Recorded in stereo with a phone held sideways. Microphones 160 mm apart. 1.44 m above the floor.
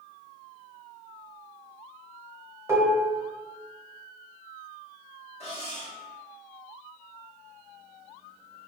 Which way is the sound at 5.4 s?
40° left (ahead or behind).